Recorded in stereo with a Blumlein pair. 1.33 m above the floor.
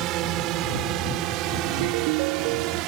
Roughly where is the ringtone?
Ahead right.